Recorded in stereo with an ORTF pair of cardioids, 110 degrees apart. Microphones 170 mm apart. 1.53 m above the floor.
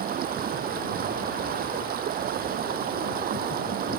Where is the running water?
65° right.